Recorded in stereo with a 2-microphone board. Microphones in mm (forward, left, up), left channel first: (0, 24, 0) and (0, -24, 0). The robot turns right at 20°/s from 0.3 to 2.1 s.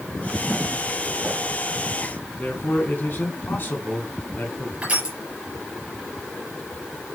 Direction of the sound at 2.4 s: 45° left (ahead or behind).